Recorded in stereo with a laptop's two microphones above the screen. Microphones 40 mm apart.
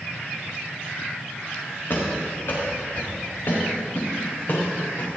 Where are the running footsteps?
80° left, 5 m; by 5.1 s 45° left (ahead or behind), 6 m.